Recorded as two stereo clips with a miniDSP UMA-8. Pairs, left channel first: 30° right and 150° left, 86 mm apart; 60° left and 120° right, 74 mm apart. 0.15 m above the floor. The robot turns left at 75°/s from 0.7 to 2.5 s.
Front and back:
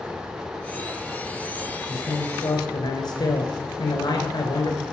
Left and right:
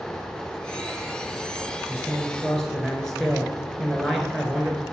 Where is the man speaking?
25° left, 2 m; by 4.8 s 25° right, 2 m.